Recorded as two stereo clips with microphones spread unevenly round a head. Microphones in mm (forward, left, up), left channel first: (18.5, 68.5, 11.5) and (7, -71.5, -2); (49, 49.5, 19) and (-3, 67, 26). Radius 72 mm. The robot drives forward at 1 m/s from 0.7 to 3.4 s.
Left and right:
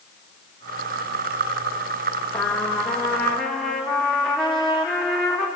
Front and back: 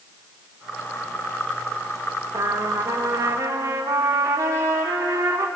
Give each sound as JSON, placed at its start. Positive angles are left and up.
{"t": 2.3, "sound": "a trumpet", "azimuth_deg": 165, "distance_m": 1.9}